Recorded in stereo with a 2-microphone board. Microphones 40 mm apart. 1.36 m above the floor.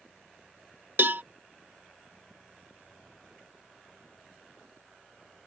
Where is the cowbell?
55° right (ahead or behind).